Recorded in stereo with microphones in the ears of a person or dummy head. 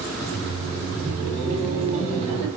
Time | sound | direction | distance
0.2 | laughter | 35° right (ahead or behind) | 2 m